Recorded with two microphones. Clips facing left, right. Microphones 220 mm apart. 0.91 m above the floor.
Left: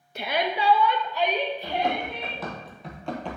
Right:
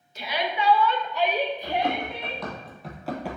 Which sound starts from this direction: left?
A shout, at 0.1 s.